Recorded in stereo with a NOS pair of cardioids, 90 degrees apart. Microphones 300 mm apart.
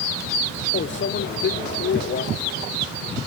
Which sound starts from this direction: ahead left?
A microwave, at 0.7 s.